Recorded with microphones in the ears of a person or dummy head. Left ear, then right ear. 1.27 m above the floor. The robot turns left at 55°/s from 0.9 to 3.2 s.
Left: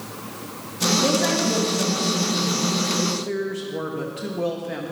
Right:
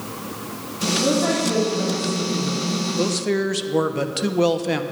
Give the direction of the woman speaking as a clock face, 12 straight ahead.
9 o'clock.